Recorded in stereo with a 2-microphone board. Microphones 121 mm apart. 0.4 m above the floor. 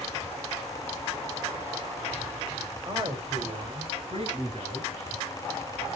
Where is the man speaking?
30° right (ahead or behind), 2 m; by 4.9 s 55° right (ahead or behind), 4 m.